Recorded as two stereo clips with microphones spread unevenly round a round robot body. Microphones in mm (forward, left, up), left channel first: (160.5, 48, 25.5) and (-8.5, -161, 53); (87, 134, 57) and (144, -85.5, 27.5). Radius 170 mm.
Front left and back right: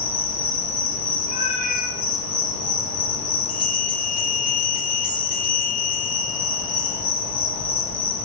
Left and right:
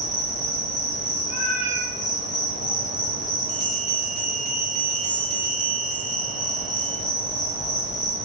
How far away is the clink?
I don't hear a clink.